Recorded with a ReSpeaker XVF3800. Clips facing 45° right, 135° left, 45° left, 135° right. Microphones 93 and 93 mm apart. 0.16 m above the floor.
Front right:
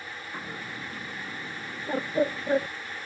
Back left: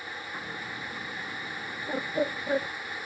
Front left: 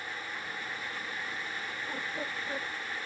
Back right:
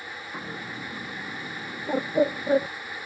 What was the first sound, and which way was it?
A bird, 120° right.